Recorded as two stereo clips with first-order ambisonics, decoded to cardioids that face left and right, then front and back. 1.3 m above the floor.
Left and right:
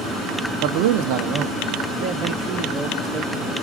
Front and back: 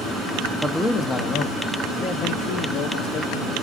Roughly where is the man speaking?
Right.